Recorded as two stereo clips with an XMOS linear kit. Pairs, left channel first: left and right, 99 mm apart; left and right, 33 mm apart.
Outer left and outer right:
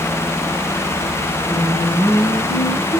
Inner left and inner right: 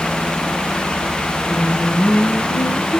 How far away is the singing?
About 1.8 m.